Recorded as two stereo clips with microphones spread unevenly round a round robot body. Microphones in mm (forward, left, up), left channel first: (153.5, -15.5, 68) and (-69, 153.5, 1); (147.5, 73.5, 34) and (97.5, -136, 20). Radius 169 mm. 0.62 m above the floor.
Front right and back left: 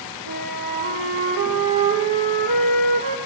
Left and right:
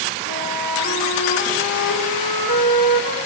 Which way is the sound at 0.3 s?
110° left.